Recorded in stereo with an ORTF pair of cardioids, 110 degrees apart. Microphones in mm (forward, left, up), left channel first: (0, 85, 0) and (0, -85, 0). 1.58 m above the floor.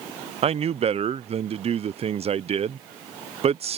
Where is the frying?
No frying in this recording.